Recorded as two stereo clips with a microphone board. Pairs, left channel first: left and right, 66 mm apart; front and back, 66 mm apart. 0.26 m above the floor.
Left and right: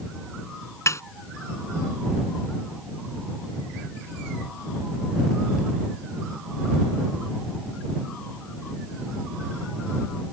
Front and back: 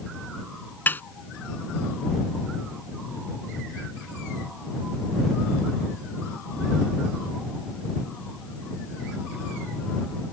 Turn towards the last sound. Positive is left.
turn(degrees=55)